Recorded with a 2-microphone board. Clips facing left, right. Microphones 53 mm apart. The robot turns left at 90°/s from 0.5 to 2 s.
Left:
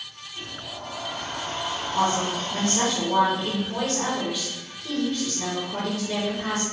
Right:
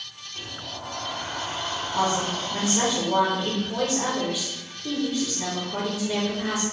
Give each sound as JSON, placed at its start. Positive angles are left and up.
{"t": 0.3, "sound": "a sliding door", "azimuth_deg": -75, "distance_m": 1.0}
{"t": 1.9, "sound": "a woman speaking", "side_deg": -10, "distance_m": 0.8}